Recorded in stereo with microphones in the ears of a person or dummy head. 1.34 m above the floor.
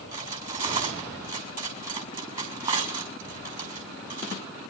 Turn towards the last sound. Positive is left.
turn(degrees=-40)  # may be behind; listen again after turning